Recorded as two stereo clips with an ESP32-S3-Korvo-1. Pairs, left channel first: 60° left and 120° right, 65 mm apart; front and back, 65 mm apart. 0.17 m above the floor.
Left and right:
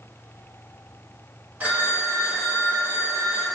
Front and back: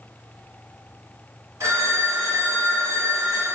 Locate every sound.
1.6 s a phone ringing: 175° right, 1.5 m